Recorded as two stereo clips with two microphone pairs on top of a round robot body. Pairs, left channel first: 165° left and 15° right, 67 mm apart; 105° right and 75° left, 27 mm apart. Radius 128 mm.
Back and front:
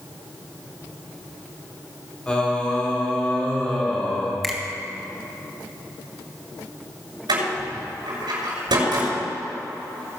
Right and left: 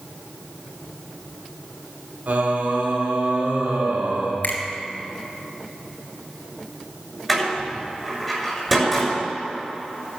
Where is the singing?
90° left, 2.5 m.